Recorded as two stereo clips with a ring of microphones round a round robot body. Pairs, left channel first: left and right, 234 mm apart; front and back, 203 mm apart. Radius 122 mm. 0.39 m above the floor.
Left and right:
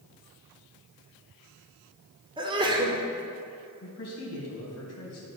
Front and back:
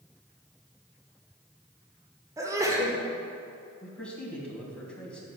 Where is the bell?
I don't hear a bell.